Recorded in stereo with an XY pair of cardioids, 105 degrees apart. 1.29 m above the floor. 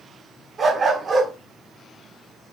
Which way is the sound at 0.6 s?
45° right.